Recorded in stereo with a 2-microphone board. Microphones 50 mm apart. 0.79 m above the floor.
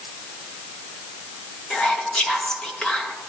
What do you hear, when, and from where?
1.7 s whispering: 15° left (ahead or behind), 1.0 m